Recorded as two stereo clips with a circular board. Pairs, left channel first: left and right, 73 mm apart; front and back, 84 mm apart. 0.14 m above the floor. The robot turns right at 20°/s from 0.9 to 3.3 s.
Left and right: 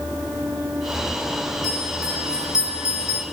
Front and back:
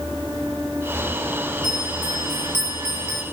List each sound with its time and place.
1.6 s a bell: 135° right, 9 m; by 3.2 s 105° right, 9 m